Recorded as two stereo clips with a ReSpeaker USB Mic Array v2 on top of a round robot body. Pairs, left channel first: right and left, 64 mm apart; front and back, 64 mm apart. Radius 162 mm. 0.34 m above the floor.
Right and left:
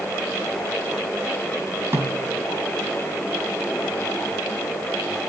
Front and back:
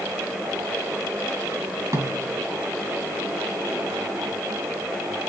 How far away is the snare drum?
About 4 m.